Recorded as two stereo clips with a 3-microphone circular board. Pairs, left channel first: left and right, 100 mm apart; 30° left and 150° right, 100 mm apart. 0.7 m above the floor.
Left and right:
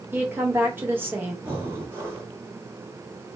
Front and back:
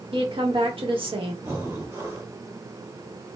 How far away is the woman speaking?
About 1.0 m.